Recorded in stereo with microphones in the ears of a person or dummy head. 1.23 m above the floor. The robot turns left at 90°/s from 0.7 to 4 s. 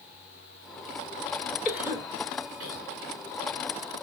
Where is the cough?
10° left (ahead or behind), 1.1 m; by 2.9 s 80° right, 1.1 m.